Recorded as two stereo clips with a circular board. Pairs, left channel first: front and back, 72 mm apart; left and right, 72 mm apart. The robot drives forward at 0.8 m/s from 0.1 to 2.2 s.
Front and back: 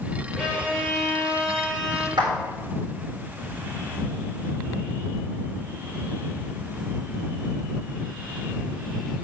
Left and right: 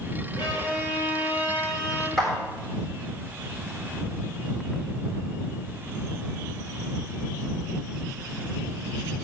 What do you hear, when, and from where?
0.4 s a violin: 75° left, 5.5 m; by 2.1 s 90° left, 5.5 m
2.2 s a clap: 175° left, 6.5 m